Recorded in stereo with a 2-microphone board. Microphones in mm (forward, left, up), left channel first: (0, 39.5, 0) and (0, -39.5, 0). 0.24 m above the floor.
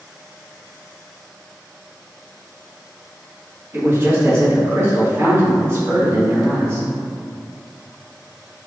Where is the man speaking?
35° right (ahead or behind), 1.3 m.